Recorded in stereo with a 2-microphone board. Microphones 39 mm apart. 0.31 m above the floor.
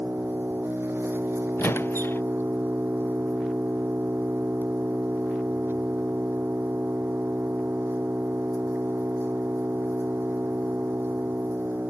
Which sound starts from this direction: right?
An engine running, at 0.0 s.